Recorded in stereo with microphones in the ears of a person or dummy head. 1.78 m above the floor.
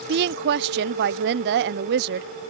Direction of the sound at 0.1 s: 60° right (ahead or behind).